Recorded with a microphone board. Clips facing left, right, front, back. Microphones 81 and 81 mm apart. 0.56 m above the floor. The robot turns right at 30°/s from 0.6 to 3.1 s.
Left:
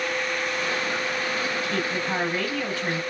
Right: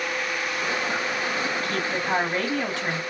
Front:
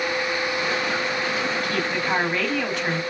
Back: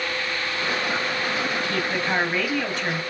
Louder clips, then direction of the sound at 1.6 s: Even, front 1 dB; 120° right.